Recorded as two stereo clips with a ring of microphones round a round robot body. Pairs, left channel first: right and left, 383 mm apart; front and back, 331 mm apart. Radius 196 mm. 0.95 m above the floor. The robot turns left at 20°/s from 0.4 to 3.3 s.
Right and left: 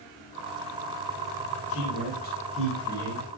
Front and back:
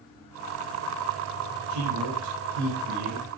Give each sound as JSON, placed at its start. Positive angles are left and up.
{"t": 1.7, "sound": "a man speaking", "azimuth_deg": -145, "distance_m": 5.5}